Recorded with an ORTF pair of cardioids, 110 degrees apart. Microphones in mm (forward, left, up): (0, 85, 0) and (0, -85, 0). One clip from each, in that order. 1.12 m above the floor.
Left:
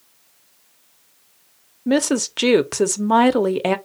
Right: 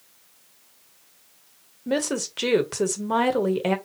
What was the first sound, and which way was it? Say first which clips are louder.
A woman speaking: left 6 dB; 30° left.